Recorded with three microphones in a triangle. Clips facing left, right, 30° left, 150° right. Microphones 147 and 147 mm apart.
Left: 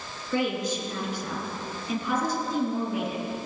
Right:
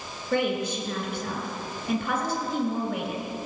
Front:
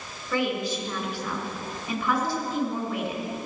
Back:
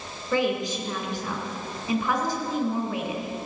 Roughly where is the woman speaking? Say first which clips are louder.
Right 1 dB, back 2 dB; right.